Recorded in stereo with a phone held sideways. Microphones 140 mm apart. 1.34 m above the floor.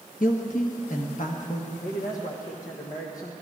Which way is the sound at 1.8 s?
70° left (ahead or behind).